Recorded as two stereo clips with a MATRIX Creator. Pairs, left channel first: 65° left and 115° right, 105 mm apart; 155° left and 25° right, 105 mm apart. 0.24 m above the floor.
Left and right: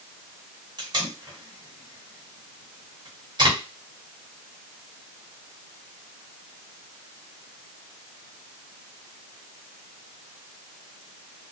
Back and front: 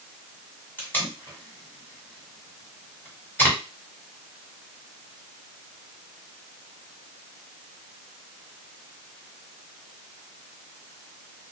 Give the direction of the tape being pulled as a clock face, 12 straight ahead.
5 o'clock.